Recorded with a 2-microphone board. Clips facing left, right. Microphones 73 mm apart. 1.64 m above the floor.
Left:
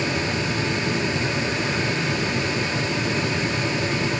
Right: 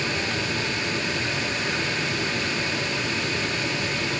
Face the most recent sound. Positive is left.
No sound to turn to.